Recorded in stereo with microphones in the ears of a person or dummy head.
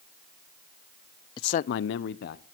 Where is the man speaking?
25° left (ahead or behind), 0.6 m; by 2.5 s 60° left (ahead or behind), 1.3 m.